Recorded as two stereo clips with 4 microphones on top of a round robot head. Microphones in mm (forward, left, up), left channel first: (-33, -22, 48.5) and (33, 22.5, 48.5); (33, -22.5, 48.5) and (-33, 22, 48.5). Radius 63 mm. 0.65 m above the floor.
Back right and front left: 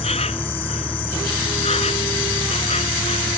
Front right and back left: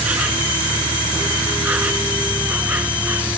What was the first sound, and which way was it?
An insect, 145° right.